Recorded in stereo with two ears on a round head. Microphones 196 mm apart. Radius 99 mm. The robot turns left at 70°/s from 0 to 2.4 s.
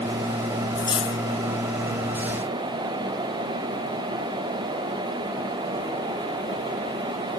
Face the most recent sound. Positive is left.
turn(degrees=50)